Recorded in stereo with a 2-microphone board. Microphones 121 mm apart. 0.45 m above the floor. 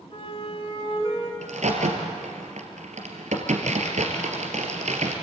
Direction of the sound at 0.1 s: 50° left (ahead or behind).